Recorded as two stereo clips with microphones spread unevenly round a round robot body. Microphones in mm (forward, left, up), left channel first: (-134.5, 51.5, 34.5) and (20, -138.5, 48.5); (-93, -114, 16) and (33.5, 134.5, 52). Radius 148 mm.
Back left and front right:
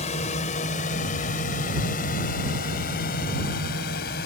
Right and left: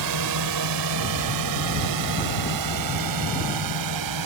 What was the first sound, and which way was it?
A drone, 60° left.